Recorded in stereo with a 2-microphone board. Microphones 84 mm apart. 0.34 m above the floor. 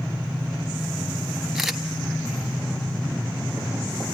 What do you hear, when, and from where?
1.6 s a camera shutter: 5° right (ahead or behind), 1.1 m